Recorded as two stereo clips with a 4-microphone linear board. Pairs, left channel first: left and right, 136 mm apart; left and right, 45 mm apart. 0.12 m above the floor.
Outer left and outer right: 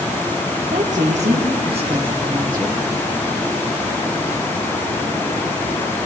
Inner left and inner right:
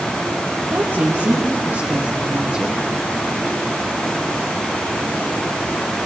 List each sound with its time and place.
0.7 s a woman speaking: 65° right (ahead or behind), 5 m; by 2.8 s 25° right (ahead or behind), 4 m